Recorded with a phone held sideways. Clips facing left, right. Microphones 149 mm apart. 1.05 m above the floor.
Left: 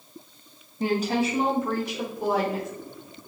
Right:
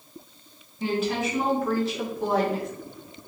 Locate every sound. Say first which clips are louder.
0.8 s a woman speaking: left 2 dB; 45° left (ahead or behind), 1.1 m; by 2.7 s 5° left (ahead or behind), 1.6 m